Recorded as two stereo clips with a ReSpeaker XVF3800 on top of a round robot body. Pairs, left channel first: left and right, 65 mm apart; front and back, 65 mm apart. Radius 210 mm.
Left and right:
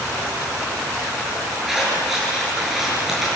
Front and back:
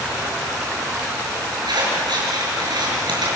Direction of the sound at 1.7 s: 175° right.